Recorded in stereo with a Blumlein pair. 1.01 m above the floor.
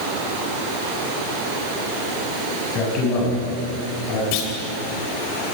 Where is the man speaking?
35° left, 8 m; by 4.2 s 45° left, 9 m.